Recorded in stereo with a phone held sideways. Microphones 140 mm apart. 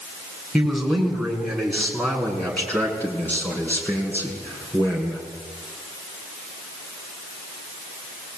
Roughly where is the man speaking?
Centre.